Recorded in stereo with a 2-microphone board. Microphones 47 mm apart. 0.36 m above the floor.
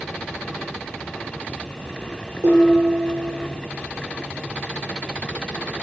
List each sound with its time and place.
2.4 s dishes clattering: 80° right, 6 m